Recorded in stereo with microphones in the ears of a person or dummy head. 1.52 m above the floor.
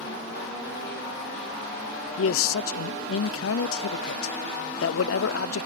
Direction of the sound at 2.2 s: 75° left (ahead or behind).